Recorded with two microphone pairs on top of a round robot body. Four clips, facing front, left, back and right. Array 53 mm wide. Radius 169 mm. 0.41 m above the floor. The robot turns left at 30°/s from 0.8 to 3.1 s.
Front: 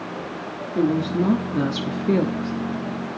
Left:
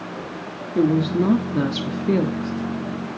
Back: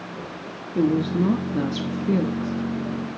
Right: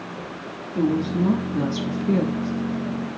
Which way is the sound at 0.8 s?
85° left.